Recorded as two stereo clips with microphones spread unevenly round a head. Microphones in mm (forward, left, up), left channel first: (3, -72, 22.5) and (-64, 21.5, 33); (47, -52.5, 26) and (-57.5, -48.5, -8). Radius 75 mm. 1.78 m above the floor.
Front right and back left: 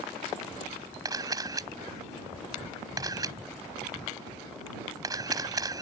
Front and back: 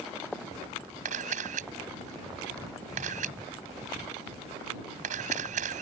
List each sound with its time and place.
1.1 s a camera shutter: straight behind